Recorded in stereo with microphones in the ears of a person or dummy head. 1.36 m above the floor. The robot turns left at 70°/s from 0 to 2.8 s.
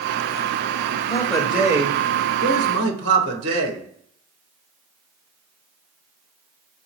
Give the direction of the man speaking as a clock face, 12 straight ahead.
11 o'clock.